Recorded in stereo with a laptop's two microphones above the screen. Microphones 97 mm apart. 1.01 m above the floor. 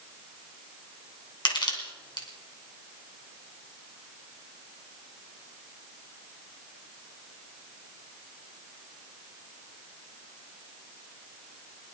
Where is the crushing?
50° left (ahead or behind), 2.5 m.